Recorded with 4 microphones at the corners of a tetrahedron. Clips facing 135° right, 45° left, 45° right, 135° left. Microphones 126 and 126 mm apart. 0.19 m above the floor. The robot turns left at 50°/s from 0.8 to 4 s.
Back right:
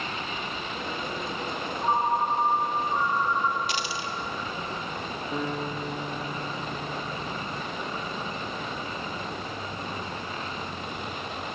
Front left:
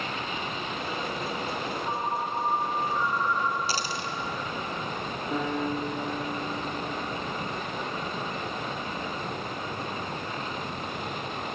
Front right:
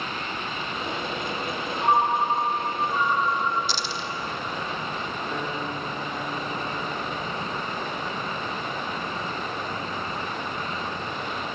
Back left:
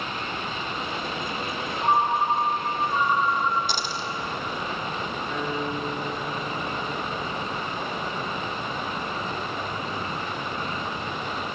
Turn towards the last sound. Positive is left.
turn(degrees=25)